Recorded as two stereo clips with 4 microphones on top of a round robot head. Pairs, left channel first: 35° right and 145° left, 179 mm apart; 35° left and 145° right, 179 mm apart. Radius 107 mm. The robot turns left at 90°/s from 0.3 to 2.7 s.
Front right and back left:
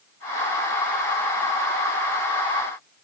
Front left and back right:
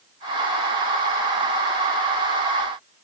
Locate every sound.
Only background noise.